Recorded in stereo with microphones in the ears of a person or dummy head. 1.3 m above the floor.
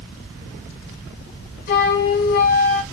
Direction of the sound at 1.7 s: 55° left (ahead or behind).